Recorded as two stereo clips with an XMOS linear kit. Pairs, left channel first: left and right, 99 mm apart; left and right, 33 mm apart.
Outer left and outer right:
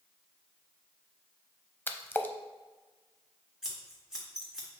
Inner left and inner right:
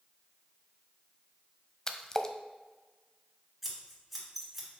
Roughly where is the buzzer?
No buzzer in this recording.